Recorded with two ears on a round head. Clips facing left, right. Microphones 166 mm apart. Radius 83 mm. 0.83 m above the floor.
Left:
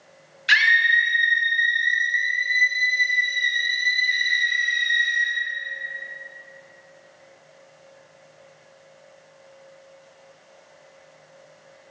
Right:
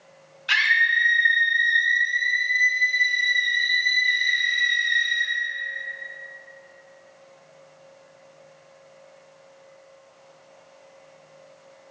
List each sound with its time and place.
0.5 s a scream: 25° left (ahead or behind), 0.8 m; by 5.3 s 65° right (ahead or behind), 2.5 m